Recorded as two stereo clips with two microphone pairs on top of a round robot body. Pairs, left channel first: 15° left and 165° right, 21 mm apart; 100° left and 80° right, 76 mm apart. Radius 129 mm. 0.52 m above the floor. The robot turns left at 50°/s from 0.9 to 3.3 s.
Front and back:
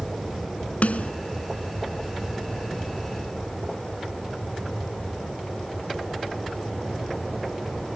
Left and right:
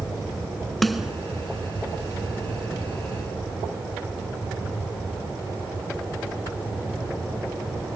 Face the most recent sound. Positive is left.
turn(degrees=-110)